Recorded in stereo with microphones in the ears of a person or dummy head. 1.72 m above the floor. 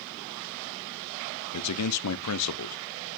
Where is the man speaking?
85° left, 0.8 m.